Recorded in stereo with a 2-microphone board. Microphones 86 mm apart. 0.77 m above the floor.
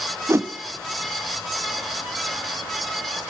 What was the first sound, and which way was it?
A whoosh, 30° right (ahead or behind).